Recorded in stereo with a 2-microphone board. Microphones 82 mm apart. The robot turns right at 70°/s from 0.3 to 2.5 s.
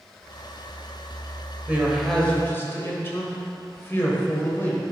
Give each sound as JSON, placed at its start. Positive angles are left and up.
{"t": 1.7, "sound": "a man speaking", "azimuth_deg": -25, "distance_m": 1.7}